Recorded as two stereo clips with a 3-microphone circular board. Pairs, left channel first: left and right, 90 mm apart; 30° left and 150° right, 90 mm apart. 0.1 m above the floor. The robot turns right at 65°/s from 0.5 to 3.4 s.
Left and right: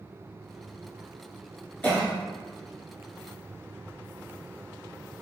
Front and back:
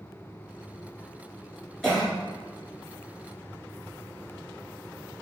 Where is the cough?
100° left, 1.1 m; by 2.1 s 120° left, 1.1 m.